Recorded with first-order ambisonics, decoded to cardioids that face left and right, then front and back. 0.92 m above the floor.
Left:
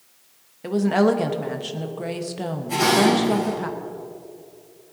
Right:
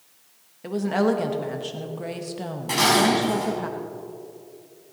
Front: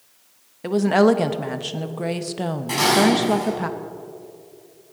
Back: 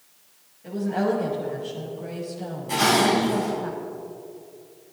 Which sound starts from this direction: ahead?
A woman speaking, at 0.6 s.